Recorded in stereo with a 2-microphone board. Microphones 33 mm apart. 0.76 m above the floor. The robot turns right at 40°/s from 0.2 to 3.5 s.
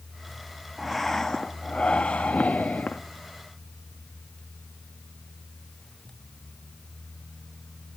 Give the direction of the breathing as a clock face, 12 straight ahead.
12 o'clock.